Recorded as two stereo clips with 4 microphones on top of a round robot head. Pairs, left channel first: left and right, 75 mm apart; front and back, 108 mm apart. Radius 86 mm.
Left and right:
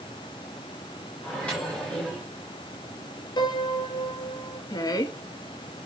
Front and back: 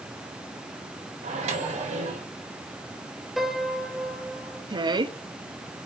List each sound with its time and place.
1.2 s a microwave: 170° left, 3.5 m
3.4 s a piano: 95° left, 1.7 m
4.7 s a woman speaking: 135° left, 1.0 m